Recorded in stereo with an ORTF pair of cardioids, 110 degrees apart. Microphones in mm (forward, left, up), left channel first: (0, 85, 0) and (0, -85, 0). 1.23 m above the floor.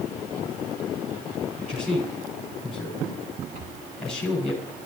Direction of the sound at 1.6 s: 5° left.